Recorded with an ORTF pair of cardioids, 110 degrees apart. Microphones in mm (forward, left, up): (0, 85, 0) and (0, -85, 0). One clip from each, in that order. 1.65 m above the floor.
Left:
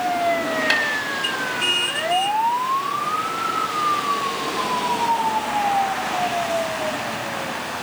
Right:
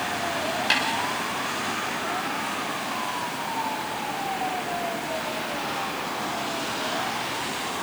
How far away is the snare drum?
About 6 m.